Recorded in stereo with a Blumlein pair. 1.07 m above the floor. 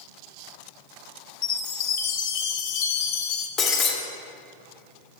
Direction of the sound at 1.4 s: 45° left.